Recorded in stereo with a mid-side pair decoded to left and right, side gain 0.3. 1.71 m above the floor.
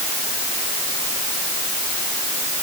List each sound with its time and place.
Only background noise.